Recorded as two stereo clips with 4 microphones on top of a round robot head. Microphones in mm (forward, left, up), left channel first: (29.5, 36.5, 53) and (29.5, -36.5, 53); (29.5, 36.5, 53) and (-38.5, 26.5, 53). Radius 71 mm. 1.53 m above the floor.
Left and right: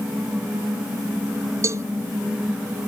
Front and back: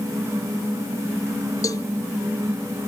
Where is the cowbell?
45° right.